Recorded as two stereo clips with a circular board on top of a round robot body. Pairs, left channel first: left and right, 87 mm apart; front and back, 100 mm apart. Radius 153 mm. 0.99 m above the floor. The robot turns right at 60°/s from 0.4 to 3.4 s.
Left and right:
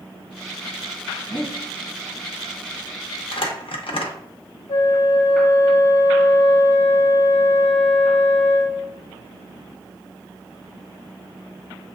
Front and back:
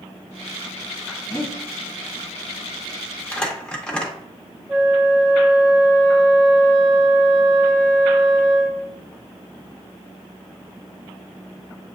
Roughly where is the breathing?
Ahead left.